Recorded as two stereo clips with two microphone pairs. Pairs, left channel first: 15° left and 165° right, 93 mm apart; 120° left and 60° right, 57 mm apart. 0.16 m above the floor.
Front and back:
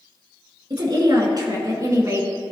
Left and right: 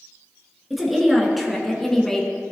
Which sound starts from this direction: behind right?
A woman speaking, at 0.7 s.